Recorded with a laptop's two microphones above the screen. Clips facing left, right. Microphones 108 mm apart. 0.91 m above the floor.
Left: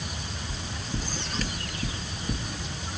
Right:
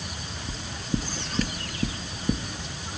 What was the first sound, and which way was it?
Knocking, 50° right (ahead or behind).